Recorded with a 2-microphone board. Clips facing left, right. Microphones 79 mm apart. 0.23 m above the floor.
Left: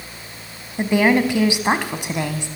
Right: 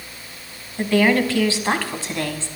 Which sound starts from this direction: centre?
A woman speaking, at 0.8 s.